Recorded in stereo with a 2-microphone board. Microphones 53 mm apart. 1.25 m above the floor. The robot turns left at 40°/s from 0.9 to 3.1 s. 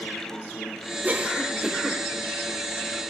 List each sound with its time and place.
1.0 s a cough: 35° right (ahead or behind), 1.3 m; by 2.0 s centre (ahead or behind), 1.3 m